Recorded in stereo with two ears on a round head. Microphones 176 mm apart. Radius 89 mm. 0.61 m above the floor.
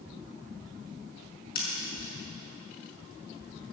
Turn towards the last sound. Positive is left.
turn(degrees=55)  # may be behind; listen again after turning